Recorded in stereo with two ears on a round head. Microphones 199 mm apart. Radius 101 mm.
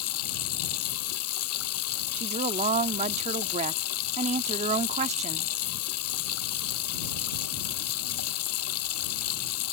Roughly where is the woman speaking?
Right.